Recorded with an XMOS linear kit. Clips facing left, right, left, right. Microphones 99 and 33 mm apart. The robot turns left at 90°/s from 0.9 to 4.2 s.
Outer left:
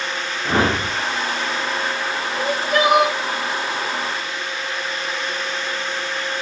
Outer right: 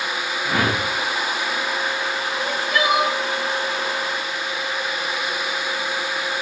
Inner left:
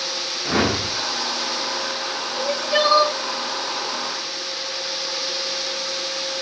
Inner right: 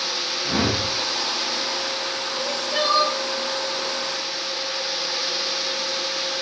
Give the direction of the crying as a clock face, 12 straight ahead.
6 o'clock.